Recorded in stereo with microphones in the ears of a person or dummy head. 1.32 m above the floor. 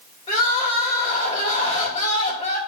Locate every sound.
0.3 s crying: 30° left (ahead or behind), 3 m